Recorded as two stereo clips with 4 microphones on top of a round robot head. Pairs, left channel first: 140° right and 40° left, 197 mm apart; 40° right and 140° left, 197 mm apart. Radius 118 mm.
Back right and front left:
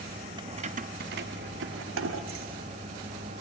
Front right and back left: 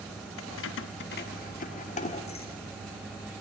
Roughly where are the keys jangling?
Ahead right.